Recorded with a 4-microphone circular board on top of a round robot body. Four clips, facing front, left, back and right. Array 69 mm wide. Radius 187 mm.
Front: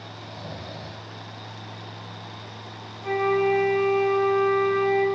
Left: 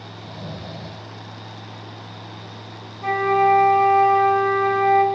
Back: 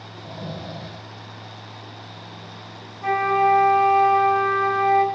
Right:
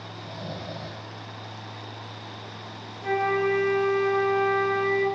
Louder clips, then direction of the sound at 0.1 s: Left 1 dB, back 6 dB; straight behind.